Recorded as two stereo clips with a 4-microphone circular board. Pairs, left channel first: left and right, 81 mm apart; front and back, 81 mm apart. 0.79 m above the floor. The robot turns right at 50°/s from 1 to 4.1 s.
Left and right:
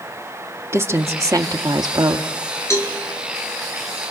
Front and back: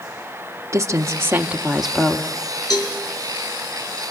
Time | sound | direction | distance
0.7 | a woman speaking | 135° right | 1.4 m
2.7 | a cowbell | 35° left | 4.5 m